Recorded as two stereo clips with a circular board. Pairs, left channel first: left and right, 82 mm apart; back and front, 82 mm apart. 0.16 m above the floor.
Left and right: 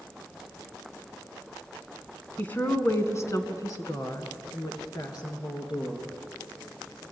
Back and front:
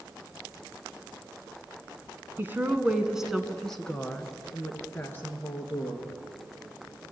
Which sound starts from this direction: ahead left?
A woman speaking, at 2.4 s.